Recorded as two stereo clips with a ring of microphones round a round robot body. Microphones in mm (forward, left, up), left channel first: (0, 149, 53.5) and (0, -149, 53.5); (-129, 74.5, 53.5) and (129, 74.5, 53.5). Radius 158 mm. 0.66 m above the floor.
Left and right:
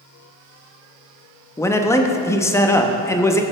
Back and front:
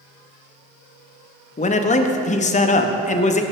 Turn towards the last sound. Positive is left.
turn(degrees=160)